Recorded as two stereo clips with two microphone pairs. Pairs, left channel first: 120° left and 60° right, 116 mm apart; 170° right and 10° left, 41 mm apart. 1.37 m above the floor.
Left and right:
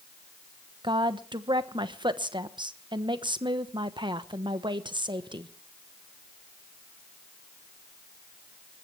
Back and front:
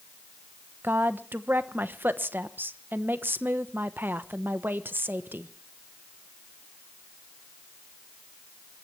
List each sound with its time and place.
0.8 s a woman speaking: 15° right, 1.1 m